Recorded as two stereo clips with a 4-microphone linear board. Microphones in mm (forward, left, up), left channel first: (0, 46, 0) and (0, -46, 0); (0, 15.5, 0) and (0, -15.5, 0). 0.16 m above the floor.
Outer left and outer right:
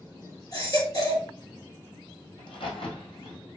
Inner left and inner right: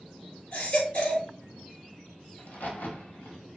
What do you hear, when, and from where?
0.5 s a baby crying: 40° left (ahead or behind), 1.8 m
2.4 s a crack: 65° left (ahead or behind), 1.9 m